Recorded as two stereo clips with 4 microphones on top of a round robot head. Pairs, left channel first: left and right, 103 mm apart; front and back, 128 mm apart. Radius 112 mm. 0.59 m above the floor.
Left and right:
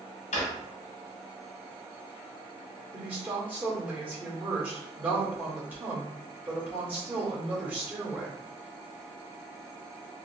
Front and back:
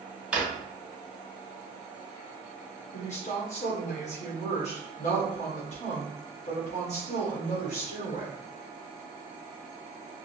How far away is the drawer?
About 1.0 m.